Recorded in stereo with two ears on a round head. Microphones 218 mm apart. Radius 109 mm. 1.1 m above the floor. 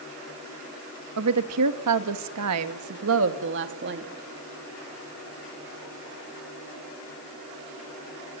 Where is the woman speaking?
65° right (ahead or behind), 1.8 m; by 4.1 s 45° right (ahead or behind), 2.5 m.